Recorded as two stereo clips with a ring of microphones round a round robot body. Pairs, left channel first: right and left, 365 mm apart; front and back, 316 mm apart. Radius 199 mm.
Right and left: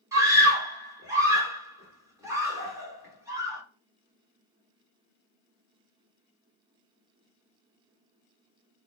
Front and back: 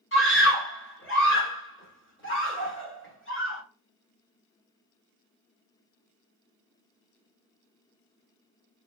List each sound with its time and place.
0.1 s a scream: 15° left, 1.7 m